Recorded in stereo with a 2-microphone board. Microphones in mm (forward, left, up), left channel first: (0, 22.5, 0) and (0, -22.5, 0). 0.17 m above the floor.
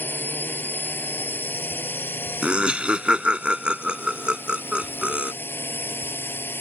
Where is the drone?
50° left (ahead or behind); by 6.6 s 55° left (ahead or behind).